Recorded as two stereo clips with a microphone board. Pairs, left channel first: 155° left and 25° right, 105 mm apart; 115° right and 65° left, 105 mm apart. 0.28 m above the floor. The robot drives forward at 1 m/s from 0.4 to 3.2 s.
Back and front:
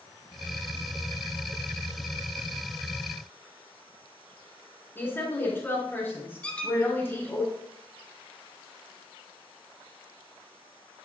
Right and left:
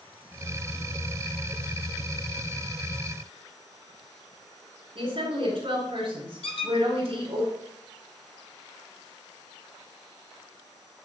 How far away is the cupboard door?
No cupboard door in this recording.